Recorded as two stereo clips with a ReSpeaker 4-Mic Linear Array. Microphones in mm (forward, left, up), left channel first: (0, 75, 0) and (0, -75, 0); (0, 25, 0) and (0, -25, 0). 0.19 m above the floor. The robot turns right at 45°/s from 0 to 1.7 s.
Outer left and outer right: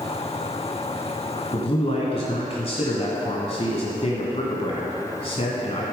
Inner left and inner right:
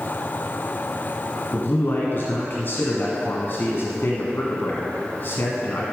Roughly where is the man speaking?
Left.